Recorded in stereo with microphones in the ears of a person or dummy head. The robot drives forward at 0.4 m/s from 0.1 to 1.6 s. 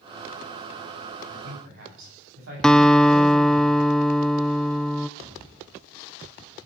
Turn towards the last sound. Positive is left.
turn(degrees=-30)  # may be behind; listen again after turning